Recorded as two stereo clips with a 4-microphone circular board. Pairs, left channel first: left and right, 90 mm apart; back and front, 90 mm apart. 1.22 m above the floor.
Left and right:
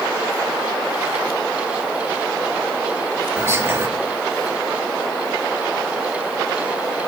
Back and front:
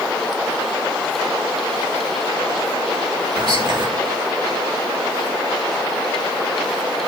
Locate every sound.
3.4 s whispering: 30° right, 1.8 m